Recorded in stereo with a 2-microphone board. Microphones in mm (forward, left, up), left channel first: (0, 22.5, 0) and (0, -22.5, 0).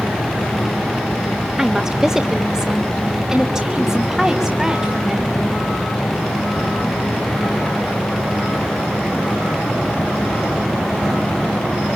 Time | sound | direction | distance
1.6 | a woman speaking | 10° right (ahead or behind) | 1.2 m